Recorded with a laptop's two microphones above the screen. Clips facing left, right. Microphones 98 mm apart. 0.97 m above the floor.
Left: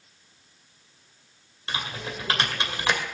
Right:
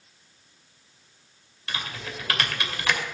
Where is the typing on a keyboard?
25° left (ahead or behind), 2.5 m.